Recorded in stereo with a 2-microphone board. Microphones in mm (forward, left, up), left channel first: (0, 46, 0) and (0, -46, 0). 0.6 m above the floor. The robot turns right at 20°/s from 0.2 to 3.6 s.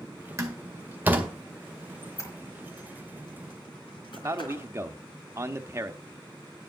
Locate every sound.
0.4 s a door slam: 35° right (ahead or behind), 1.8 m; by 1.3 s 20° right (ahead or behind), 1.8 m
2.0 s a squeak: 30° left (ahead or behind), 3 m; by 4.7 s 60° left (ahead or behind), 3 m
4.2 s a man speaking: 30° right (ahead or behind), 0.8 m